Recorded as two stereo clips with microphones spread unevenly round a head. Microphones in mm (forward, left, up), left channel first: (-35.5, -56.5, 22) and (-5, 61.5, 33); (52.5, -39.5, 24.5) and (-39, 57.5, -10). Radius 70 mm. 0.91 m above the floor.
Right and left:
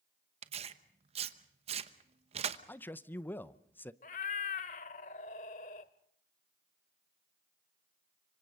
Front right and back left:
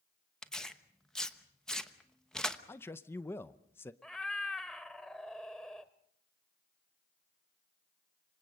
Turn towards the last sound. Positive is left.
turn(degrees=-120)